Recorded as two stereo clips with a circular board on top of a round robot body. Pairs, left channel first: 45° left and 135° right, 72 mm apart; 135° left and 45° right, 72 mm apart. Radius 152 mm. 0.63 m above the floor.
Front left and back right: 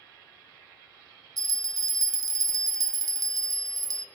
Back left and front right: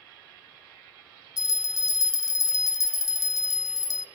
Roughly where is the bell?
Behind.